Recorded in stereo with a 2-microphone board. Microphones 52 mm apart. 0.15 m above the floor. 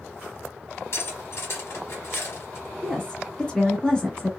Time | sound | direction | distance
0.9 | cutlery clinking | 55° left (ahead or behind) | 1.5 m
2.8 | a woman speaking | 15° left (ahead or behind) | 1.1 m